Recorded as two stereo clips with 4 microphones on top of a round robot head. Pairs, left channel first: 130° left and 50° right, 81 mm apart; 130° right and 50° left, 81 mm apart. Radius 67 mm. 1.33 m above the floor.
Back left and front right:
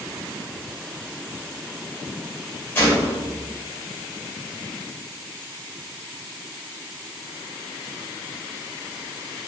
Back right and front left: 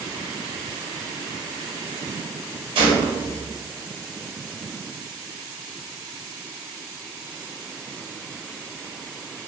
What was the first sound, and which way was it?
A gunshot, 65° left.